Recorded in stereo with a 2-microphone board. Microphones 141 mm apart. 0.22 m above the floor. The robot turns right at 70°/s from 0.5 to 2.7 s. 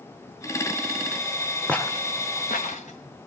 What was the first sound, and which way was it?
Footsteps, 5° left (ahead or behind).